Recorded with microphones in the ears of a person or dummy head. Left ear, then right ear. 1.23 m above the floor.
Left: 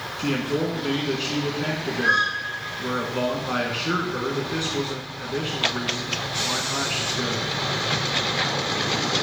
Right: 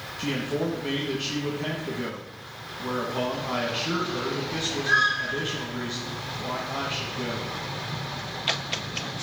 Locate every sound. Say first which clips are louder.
0.2 s a man speaking: left 3 dB; 5° left (ahead or behind), 1.4 m